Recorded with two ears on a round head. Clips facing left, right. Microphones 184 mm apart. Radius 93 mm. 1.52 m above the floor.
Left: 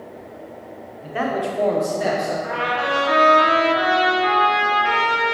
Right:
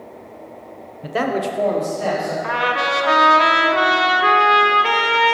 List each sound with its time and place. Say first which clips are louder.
1.0 s a man speaking: right 2 dB; 65° right (ahead or behind), 0.9 m; by 2.3 s 30° left (ahead or behind), 1.7 m
2.4 s a trumpet: right 1 dB; 65° right (ahead or behind), 0.9 m